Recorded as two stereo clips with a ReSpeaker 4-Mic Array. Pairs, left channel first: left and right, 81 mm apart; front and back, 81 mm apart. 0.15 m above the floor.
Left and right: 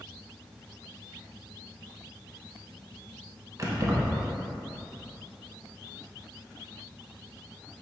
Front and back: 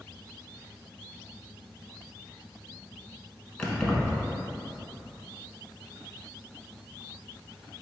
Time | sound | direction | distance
3.6 | keys jangling | 80° right | 0.9 m